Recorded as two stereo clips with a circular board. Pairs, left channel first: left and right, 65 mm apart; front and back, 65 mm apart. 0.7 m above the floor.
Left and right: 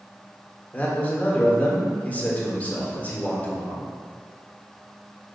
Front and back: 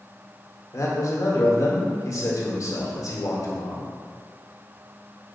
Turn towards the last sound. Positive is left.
turn(degrees=25)